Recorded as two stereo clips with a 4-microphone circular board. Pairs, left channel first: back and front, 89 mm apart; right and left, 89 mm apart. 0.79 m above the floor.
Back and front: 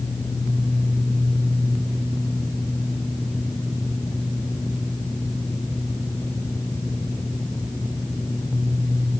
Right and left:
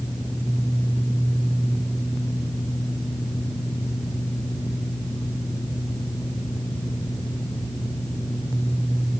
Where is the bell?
I don't hear a bell.